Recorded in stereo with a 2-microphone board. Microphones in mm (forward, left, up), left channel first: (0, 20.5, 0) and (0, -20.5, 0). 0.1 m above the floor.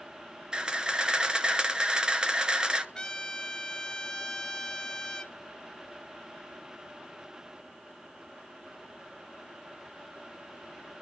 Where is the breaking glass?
No breaking glass in this recording.